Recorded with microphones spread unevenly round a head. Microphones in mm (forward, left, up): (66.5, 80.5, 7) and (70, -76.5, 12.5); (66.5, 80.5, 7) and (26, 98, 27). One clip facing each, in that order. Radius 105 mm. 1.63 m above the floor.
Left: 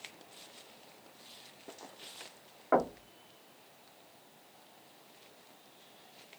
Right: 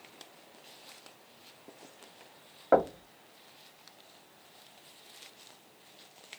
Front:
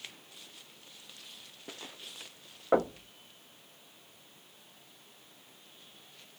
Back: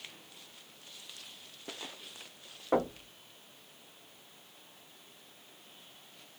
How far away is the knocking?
About 0.9 m.